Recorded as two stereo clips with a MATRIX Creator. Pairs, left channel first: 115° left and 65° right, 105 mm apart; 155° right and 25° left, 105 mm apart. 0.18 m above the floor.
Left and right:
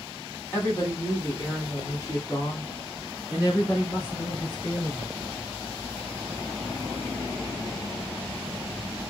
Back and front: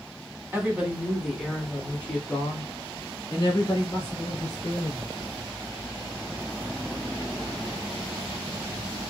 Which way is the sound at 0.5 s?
70° left.